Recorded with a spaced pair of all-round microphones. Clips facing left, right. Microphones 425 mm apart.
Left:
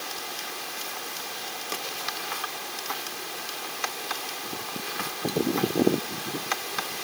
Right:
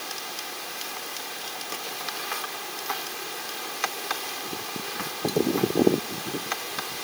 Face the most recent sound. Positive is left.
No sound to turn to.